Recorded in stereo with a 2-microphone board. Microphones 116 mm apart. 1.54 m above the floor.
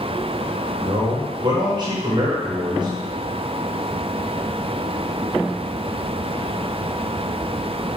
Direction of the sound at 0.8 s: 40° right (ahead or behind).